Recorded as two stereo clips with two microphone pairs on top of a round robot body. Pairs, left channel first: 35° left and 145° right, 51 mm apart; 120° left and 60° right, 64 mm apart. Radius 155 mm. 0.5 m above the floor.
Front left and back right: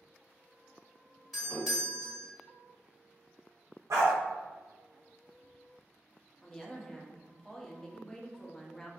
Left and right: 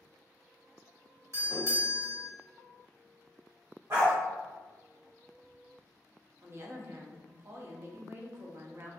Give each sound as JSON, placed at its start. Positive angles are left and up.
{"t": 1.3, "sound": "a doorbell", "azimuth_deg": -65, "distance_m": 2.0}
{"t": 3.9, "sound": "a dog barking", "azimuth_deg": -115, "distance_m": 0.5}
{"t": 6.4, "sound": "a woman speaking", "azimuth_deg": -60, "distance_m": 0.7}